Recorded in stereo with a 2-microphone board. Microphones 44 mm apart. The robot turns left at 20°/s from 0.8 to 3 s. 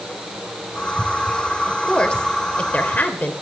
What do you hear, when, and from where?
1.7 s a woman speaking: 15° left (ahead or behind), 2.5 m; by 3.3 s 35° left (ahead or behind), 2.5 m